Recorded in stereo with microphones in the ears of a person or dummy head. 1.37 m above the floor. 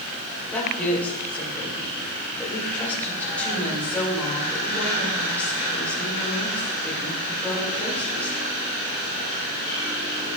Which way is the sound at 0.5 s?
10° left (ahead or behind).